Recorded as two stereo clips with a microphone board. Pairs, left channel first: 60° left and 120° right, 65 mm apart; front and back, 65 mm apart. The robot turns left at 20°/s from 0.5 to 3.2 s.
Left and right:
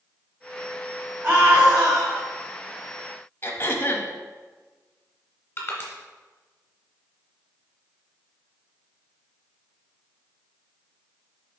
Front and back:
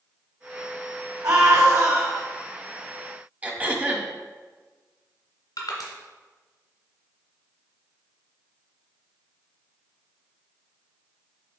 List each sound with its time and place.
1.2 s a scream: 175° right, 2.5 m; by 2.2 s 165° left, 2.5 m
3.4 s throat clearing: 115° left, 0.9 m
5.6 s crushing: straight ahead, 1.8 m